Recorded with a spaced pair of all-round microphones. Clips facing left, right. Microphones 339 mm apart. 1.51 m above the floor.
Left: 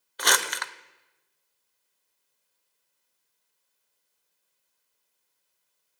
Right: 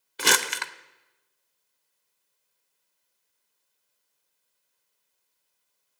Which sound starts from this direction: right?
Crumpling, at 0.2 s.